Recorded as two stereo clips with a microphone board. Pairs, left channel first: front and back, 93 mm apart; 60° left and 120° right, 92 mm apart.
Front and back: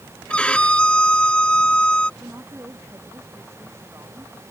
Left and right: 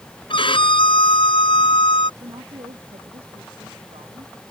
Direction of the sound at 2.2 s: 120° right.